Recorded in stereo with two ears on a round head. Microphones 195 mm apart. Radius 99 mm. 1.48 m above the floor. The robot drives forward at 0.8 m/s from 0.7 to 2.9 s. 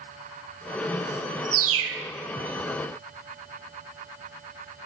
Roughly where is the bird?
Right.